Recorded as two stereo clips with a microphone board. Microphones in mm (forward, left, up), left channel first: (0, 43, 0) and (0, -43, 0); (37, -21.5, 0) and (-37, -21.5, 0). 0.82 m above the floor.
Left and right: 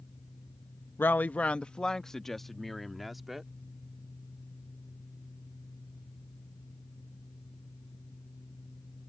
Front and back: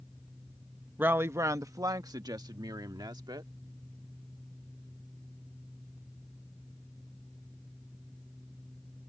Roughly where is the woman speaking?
Behind left.